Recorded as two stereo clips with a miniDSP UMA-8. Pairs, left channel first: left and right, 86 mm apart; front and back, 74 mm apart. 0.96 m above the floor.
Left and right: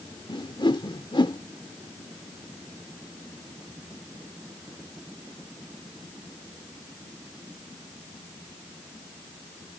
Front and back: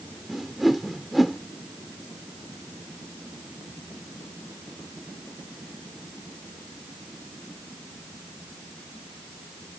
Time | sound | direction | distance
0.3 | a whoosh | 90° left | ?